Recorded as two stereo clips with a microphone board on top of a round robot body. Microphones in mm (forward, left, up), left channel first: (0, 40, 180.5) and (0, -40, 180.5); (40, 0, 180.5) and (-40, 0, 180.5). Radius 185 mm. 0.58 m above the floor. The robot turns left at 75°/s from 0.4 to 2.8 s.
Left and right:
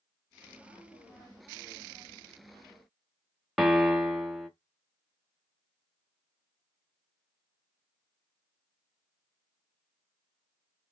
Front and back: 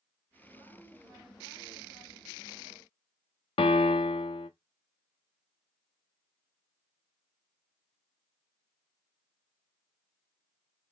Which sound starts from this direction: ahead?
A piano, at 3.6 s.